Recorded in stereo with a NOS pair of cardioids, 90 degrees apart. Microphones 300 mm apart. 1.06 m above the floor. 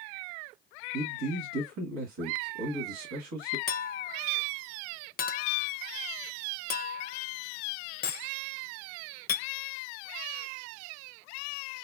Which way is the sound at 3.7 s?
35° left.